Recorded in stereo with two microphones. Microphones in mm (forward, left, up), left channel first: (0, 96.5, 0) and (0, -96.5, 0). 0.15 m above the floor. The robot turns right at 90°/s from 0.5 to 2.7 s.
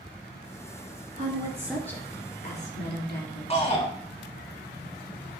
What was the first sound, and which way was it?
A woman speaking, 55° right.